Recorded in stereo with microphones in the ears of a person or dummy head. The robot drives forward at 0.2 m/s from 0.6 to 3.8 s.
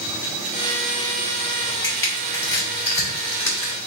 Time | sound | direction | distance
1.8 | crushing | 15° left (ahead or behind) | 1.5 m